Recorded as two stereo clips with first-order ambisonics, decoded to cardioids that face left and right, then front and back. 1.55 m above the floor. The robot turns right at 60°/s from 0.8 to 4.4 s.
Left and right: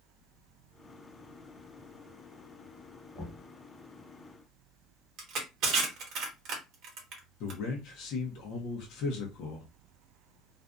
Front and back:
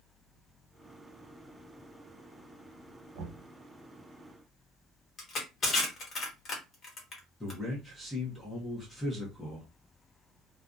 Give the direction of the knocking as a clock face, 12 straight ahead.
7 o'clock.